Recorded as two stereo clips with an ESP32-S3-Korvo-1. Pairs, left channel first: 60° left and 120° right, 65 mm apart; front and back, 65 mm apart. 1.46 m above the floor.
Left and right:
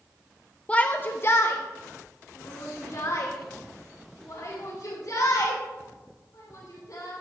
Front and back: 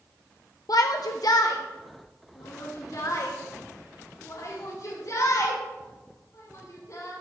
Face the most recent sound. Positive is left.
turn(degrees=35)